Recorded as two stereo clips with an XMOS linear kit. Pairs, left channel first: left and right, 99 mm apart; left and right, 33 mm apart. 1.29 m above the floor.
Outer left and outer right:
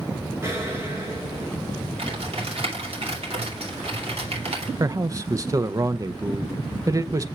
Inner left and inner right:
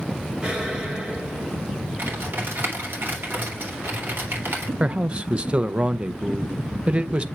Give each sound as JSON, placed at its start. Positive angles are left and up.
{"t": 0.4, "sound": "an explosion", "side_deg": -30, "distance_m": 4.0}
{"t": 2.0, "sound": "typing on a keyboard", "side_deg": -85, "distance_m": 3.0}
{"t": 4.8, "sound": "a man speaking", "side_deg": -35, "distance_m": 0.6}